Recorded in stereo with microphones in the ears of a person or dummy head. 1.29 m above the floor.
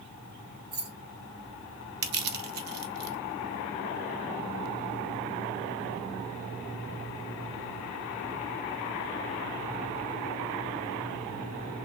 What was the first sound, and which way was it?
Keys jangling, 55° right (ahead or behind).